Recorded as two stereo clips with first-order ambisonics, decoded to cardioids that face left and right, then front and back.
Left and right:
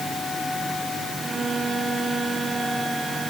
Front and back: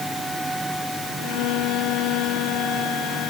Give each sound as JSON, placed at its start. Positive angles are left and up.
{"t": 1.2, "sound": "a violin", "azimuth_deg": -15}